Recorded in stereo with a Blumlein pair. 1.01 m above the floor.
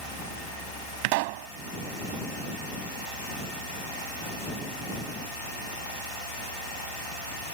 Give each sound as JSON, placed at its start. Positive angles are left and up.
{"t": 1.0, "sound": "a pop", "azimuth_deg": -45}